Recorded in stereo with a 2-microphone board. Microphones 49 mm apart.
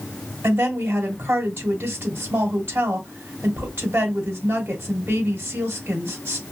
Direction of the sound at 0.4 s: 55° right (ahead or behind).